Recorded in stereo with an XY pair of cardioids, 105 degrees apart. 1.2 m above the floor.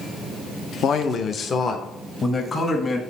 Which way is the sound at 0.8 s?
60° left.